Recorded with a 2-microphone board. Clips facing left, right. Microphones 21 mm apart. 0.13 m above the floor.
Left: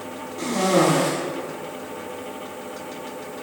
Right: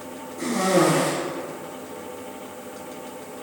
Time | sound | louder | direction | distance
0.4 | a cough | left 1 dB | 20° left (ahead or behind) | 1.8 m